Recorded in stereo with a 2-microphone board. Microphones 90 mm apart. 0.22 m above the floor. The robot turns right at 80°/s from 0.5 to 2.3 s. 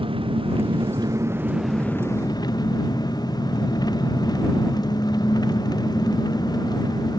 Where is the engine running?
95° right; by 7.2 s 50° left.